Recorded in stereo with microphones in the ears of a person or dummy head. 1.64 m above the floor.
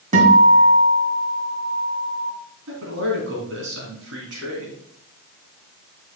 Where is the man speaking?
80° right, 3.5 m.